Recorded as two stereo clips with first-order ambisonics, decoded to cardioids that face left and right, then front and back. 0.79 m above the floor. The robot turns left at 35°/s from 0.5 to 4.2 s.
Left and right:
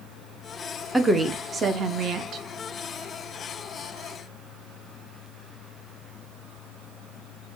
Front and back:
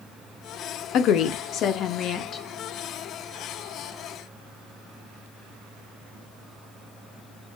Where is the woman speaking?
5° right, 0.6 m; by 2.4 s 55° right, 0.6 m.